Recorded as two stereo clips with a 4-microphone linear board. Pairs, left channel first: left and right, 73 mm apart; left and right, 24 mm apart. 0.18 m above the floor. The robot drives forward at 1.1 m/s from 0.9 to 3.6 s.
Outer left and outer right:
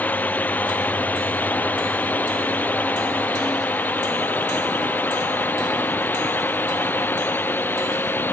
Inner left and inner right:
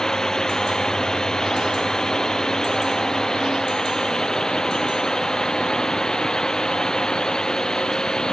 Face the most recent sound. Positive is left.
turn(degrees=25)  # may be behind; listen again after turning